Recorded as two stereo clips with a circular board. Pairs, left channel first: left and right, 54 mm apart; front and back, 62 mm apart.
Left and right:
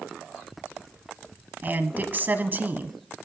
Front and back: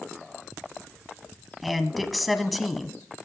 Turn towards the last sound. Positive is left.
turn(degrees=-90)